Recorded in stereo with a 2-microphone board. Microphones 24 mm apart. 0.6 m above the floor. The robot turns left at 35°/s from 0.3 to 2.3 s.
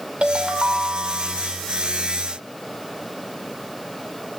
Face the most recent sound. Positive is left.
turn(degrees=-175)